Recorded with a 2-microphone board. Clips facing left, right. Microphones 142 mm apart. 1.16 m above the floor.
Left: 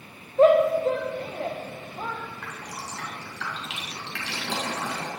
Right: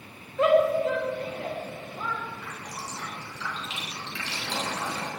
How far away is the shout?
About 1.2 m.